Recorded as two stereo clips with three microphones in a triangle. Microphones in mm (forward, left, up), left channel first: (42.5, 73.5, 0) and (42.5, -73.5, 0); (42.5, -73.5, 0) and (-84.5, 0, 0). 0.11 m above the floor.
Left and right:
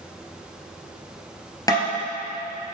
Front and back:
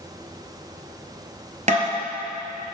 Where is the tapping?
150° left, 1.8 m.